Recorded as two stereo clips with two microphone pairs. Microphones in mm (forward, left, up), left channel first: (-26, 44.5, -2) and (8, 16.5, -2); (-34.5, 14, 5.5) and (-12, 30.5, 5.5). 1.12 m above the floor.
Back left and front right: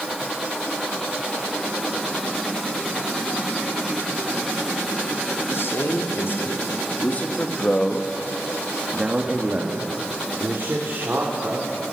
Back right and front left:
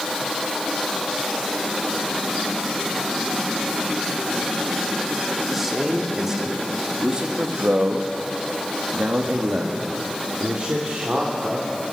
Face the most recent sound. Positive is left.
turn(degrees=-10)